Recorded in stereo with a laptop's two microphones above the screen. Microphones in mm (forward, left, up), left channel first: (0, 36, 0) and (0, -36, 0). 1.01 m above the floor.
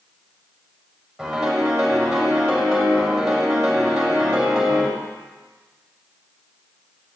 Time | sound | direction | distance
1.2 | a piano | centre (ahead or behind) | 6.5 m